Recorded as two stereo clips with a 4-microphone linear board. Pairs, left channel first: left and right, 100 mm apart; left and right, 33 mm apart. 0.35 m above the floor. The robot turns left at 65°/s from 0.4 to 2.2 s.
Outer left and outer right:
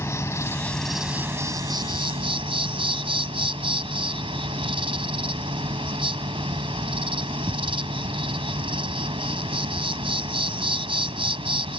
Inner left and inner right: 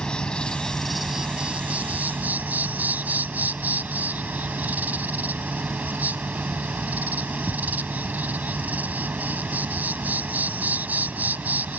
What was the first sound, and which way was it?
An insect, 35° left.